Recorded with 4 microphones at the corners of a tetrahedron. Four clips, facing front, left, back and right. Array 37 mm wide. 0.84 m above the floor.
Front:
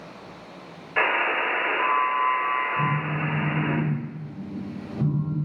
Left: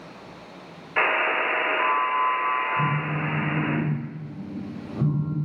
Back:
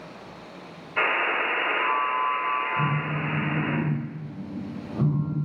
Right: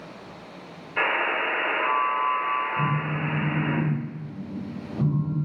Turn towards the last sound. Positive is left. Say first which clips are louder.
# left 1 dB, front 1 dB
turn(degrees=165)